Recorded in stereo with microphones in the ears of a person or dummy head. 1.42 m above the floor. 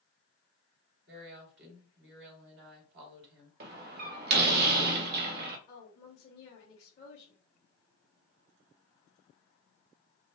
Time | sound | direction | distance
1.1 | a woman speaking | 60° right (ahead or behind) | 2.5 m
3.6 | a door slam | 55° right (ahead or behind) | 1.0 m
5.7 | a woman speaking | 35° left (ahead or behind) | 1.8 m